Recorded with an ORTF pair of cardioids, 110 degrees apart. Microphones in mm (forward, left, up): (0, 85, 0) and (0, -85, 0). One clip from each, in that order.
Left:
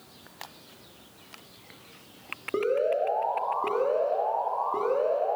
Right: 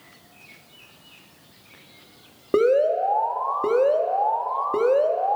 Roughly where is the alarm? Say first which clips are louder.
Right 7 dB; ahead right.